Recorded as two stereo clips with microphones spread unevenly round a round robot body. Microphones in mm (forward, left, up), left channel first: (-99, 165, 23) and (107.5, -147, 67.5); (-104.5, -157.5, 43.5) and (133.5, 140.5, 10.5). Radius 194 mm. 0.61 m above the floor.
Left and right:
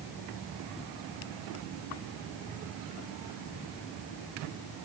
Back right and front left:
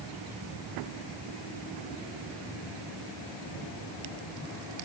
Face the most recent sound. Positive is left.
No sound to turn to.